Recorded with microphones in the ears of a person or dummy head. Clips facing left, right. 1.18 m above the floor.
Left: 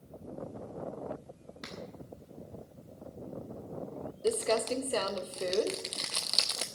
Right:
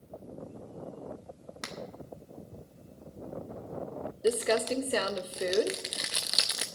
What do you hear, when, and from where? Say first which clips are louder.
1.6 s a finger snap: right 3 dB; 60° right (ahead or behind), 1.6 m
4.2 s crumpling: right 2 dB; 15° right (ahead or behind), 0.7 m